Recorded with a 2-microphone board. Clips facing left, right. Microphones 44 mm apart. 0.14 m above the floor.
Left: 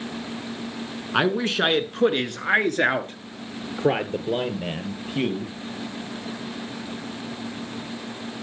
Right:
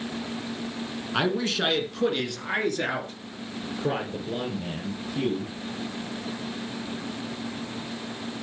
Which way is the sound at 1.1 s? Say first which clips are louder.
Left 4 dB; 25° left (ahead or behind).